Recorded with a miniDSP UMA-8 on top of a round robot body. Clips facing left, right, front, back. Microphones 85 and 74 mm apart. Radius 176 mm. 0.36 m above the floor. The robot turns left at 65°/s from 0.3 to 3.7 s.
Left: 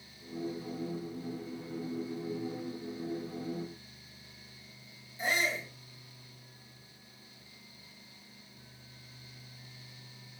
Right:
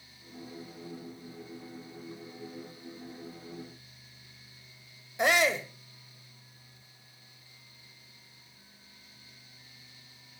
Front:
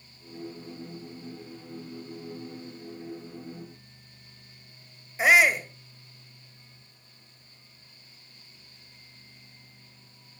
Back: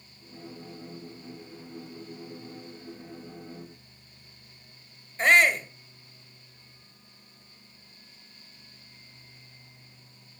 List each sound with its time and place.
5.2 s a shout: 80° right, 2.5 m